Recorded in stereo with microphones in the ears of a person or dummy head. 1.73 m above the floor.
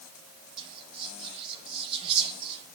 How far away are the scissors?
No scissors in this recording.